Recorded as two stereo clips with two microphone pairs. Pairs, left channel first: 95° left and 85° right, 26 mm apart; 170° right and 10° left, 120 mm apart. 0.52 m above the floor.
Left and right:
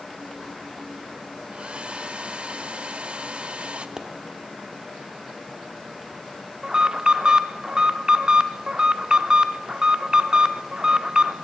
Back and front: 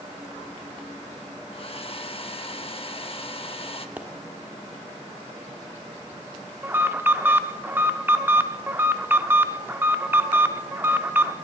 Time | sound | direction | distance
1.5 | a hair dryer | 130° right | 0.6 m
4.0 | a pop | 55° right | 1.2 m
6.6 | an alarm | 50° right | 0.6 m